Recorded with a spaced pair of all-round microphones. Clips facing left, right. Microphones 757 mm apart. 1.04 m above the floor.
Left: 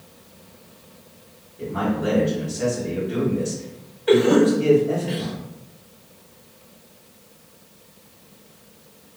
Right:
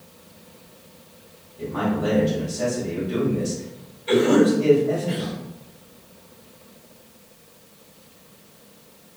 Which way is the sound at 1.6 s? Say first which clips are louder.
Even; 65° right (ahead or behind).